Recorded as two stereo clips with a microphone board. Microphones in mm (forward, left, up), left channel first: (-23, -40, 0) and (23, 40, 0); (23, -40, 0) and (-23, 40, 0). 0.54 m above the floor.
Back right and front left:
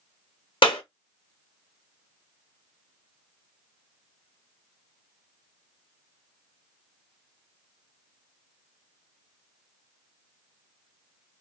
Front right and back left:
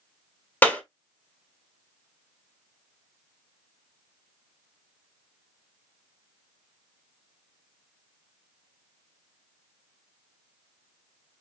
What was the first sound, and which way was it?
A clap, 130° right.